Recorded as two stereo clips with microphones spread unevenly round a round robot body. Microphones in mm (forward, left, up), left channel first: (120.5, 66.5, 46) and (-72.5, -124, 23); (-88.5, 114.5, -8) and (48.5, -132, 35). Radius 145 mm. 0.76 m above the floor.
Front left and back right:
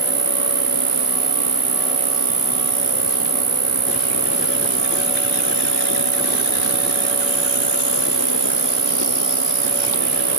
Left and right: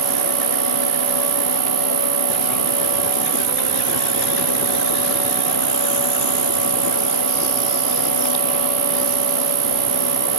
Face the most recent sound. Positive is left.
turn(degrees=-75)